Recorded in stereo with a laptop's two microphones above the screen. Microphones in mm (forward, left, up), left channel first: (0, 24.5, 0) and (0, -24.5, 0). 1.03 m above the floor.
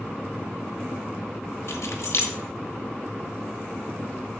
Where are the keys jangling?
80° left, 1.2 m.